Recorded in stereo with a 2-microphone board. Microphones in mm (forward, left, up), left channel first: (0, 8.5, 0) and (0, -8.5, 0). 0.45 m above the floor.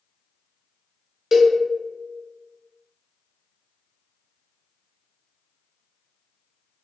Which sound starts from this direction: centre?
A cowbell, at 1.3 s.